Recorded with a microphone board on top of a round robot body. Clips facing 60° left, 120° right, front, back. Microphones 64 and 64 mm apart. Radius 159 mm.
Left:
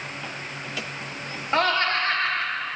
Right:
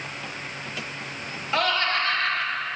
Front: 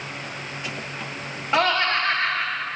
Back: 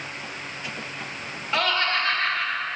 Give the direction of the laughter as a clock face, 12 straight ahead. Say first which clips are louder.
Left 2 dB, front 3 dB; 10 o'clock.